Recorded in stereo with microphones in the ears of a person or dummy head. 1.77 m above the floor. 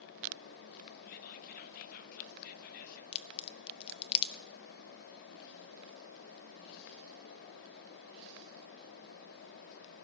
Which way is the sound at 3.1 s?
30° left (ahead or behind).